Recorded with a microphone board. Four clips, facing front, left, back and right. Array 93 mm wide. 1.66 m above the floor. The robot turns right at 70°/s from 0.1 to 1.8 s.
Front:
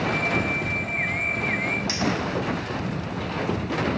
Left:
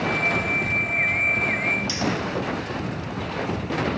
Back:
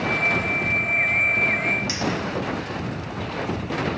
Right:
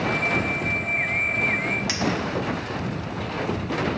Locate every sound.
1.9 s a clink: 90° right, 1.6 m